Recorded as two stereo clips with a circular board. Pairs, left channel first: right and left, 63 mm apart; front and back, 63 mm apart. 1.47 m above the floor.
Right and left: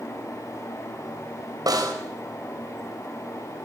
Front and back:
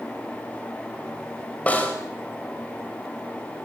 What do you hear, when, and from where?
1.7 s a snare drum: 70° left, 5 m